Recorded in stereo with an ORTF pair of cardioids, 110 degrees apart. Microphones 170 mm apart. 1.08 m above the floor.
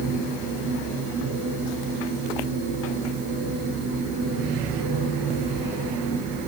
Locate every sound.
0.0 s a machine running: 65° right, 7.5 m